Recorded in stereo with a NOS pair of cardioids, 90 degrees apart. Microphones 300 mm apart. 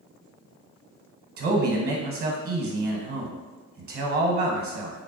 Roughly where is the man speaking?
Ahead right.